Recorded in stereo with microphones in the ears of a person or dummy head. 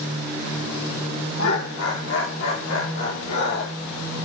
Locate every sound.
1.4 s laughter: 70° left (ahead or behind), 4 m